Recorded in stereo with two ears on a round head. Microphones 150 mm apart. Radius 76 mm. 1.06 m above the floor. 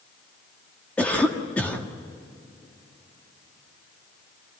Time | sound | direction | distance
1.0 | a cough | 10° left (ahead or behind) | 1.5 m